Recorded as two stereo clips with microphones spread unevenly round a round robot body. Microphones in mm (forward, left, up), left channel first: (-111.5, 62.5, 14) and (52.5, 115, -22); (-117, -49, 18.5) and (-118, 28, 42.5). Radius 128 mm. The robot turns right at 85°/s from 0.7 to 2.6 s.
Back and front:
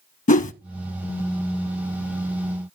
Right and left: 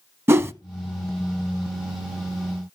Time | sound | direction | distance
0.3 | a whoosh | 150° left | 0.6 m